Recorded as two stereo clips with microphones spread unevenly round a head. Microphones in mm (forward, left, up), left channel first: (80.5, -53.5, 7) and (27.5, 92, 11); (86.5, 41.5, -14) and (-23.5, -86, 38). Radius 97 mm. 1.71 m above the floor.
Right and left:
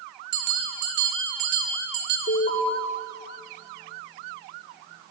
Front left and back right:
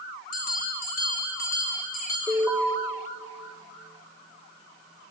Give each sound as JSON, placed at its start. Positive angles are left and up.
{"t": 0.3, "sound": "a bell", "azimuth_deg": 100, "distance_m": 4.5}
{"t": 2.3, "sound": "an alarm", "azimuth_deg": -30, "distance_m": 7.0}